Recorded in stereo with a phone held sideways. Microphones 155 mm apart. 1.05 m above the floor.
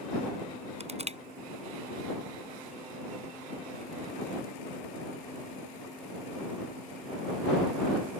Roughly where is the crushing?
Right.